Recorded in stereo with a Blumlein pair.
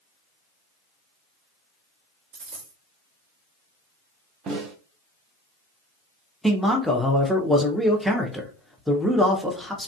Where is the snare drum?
25° right, 0.5 m.